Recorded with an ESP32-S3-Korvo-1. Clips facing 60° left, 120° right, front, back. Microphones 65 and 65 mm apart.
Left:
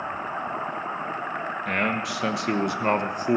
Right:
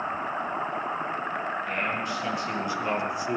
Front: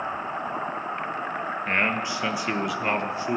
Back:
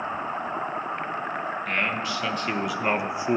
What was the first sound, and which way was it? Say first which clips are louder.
A man speaking: left 3 dB, front 3 dB; 60° left.